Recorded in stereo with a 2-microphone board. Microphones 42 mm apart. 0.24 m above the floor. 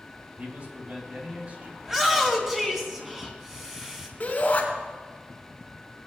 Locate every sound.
0.4 s a man speaking: 40° right (ahead or behind), 2 m
1.8 s a shout: 10° right (ahead or behind), 2 m
4.2 s a shout: 40° left (ahead or behind), 3 m